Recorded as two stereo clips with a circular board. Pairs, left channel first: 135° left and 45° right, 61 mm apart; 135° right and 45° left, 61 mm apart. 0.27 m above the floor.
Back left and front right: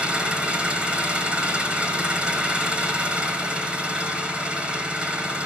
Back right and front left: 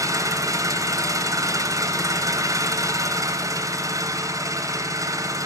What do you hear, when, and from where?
0.0 s an engine running: 25° left, 2.5 m